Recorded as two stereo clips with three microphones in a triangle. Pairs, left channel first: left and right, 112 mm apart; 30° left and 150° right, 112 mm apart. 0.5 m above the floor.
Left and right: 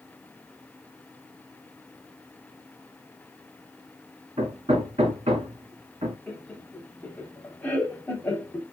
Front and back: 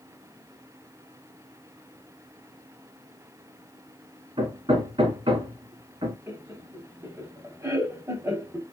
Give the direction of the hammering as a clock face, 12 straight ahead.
4 o'clock.